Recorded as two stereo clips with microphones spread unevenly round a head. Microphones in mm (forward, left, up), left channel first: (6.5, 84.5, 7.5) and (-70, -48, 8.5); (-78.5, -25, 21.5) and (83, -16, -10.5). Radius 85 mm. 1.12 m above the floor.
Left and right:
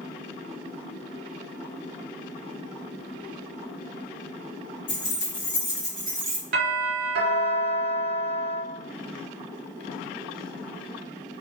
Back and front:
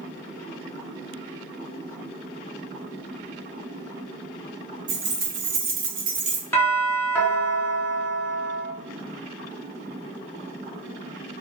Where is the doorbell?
95° right, 0.9 m.